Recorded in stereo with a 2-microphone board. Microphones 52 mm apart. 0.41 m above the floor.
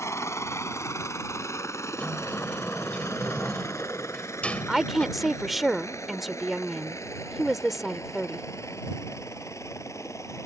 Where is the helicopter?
60° left (ahead or behind); by 10.5 s 70° left (ahead or behind).